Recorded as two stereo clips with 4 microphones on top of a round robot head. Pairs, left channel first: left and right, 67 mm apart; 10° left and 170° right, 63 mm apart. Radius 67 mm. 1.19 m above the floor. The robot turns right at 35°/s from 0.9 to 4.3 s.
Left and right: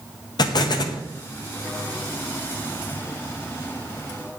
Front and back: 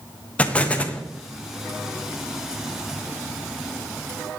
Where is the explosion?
80° left, 0.7 m; by 1.0 s 85° left, 0.7 m.